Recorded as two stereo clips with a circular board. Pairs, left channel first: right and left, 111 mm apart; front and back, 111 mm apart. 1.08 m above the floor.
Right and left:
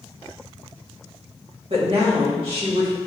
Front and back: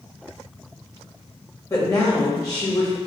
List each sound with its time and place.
1.7 s a woman speaking: 60° left, 1.8 m